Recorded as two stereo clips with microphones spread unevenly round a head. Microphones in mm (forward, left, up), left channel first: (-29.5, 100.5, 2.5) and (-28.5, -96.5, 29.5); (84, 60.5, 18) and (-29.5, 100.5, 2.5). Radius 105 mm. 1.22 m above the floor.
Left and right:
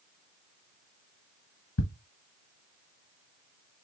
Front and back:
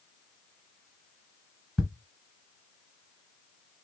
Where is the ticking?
65° left, 1.6 m.